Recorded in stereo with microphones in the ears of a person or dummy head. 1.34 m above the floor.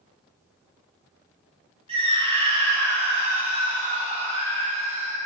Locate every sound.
1.9 s a scream: 35° right (ahead or behind), 2.5 m